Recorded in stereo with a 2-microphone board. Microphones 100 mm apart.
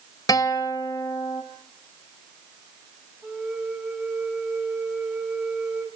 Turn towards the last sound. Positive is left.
turn(degrees=-15)  # may be behind; listen again after turning